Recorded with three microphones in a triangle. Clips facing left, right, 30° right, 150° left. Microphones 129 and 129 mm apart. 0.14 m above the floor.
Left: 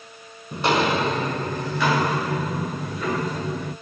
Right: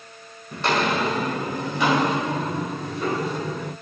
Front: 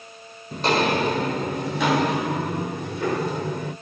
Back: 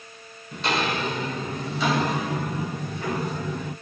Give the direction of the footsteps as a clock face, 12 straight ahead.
11 o'clock.